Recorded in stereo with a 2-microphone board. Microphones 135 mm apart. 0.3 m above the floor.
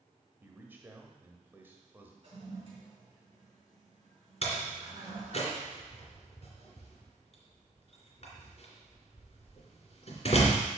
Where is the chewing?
I don't hear chewing.